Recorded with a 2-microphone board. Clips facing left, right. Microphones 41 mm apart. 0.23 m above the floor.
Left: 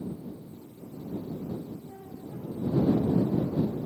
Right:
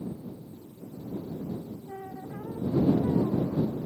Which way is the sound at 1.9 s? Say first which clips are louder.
Right 3 dB; 70° right (ahead or behind).